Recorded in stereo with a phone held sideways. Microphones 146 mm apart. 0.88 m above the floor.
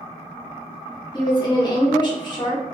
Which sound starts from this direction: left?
A woman speaking, at 1.1 s.